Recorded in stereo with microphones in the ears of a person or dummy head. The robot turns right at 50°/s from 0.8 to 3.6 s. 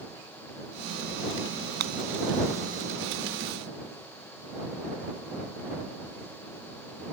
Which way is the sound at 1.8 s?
55° right (ahead or behind).